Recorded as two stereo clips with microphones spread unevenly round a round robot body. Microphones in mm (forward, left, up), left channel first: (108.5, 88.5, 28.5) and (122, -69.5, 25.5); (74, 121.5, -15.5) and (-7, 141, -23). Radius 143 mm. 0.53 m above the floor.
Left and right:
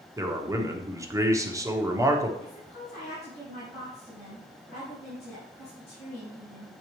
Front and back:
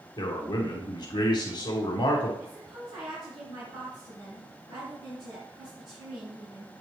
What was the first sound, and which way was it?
A man speaking, 20° right.